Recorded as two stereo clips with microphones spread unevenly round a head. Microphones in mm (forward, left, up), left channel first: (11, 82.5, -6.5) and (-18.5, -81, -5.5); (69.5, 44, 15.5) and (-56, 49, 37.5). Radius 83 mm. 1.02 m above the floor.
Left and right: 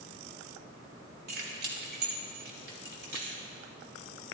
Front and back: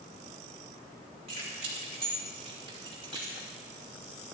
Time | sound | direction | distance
1.3 | keys jangling | 135° right | 3 m